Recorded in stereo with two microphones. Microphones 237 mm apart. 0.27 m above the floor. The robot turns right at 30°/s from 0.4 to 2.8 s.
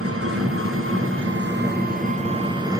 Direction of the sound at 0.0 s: 85° right.